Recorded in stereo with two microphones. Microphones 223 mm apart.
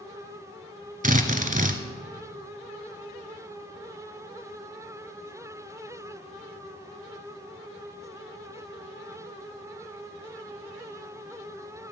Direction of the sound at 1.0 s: 35° right (ahead or behind).